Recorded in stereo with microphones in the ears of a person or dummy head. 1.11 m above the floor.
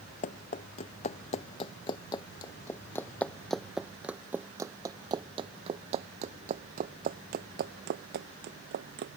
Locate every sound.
0.2 s running footsteps: 40° left (ahead or behind); by 9.2 s 65° right (ahead or behind)